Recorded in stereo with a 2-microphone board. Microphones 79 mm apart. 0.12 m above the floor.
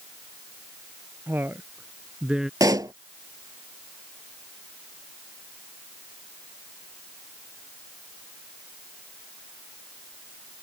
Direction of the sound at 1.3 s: 30° right (ahead or behind).